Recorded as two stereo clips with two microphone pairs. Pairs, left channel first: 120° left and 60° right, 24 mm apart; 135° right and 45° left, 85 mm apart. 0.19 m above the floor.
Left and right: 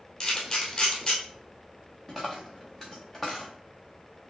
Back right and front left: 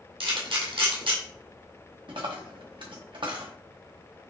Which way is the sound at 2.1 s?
30° left.